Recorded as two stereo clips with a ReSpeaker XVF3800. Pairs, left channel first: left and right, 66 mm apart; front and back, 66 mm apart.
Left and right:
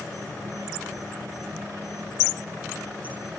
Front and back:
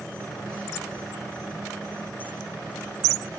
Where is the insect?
70° right, 7.5 m.